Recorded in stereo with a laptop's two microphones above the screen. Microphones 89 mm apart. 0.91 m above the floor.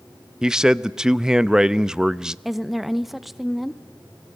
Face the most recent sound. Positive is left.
turn(degrees=0)  # may be behind; listen again after turning